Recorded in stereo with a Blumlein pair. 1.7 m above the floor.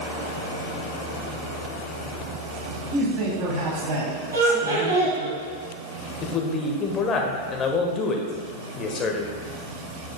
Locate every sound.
2.9 s a man speaking: 30° right, 3 m; by 5.3 s 75° right, 2.5 m
4.3 s laughter: 65° right, 2.5 m
6.2 s a man speaking: 25° left, 1.1 m